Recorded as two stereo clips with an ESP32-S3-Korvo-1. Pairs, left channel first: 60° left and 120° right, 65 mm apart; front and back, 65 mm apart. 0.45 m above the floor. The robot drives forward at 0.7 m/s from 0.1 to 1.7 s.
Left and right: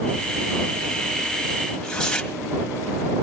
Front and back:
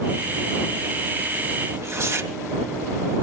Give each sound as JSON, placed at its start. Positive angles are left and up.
{"t": 1.7, "sound": "tearing paper", "azimuth_deg": 140, "distance_m": 2.5}